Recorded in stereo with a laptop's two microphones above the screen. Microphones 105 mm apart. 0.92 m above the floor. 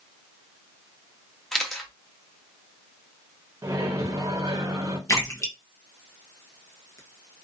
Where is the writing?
I don't hear writing.